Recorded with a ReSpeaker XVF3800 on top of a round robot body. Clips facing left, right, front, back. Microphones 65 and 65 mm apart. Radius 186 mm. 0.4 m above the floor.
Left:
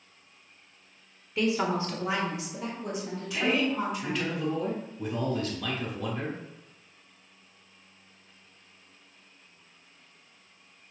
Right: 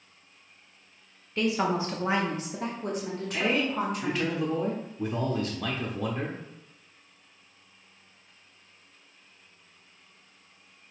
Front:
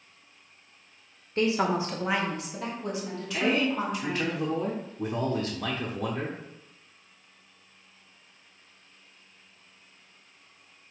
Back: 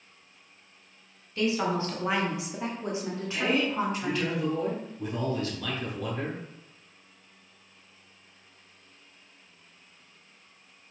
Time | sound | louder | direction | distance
1.4 | a woman speaking | right 1 dB, front 2 dB | straight ahead | 1.0 m
3.3 | a man speaking | even, front 1 dB | 45° right | 1.1 m